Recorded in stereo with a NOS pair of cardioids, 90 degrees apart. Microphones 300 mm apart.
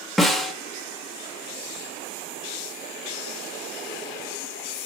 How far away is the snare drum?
About 0.6 m.